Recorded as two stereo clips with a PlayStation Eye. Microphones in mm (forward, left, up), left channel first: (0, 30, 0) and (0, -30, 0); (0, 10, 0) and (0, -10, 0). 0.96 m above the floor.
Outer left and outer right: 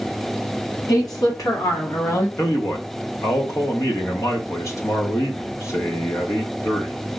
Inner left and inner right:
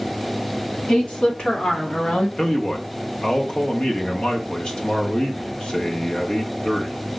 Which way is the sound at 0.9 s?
70° left (ahead or behind).